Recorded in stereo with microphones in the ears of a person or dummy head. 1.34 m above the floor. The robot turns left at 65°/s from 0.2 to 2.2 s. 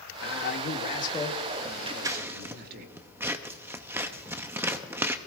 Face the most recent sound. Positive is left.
turn(degrees=-10)  # may be behind; listen again after turning